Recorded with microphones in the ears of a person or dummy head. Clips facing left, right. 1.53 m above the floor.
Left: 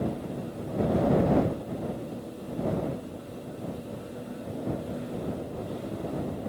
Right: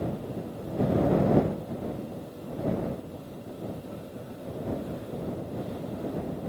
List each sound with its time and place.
Only background noise.